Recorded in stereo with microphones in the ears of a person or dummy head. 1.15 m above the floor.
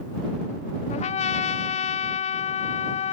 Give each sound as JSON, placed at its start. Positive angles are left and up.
{"t": 0.9, "sound": "a trumpet", "side_deg": 35}